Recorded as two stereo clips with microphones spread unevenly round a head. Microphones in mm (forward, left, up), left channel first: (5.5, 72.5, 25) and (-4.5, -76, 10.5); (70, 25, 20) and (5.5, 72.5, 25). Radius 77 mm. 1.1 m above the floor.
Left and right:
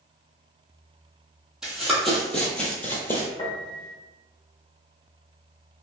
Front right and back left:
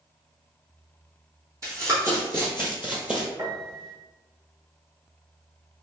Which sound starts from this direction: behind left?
A piano, at 3.4 s.